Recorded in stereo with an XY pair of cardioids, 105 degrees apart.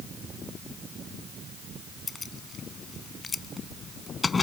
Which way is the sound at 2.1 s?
30° left.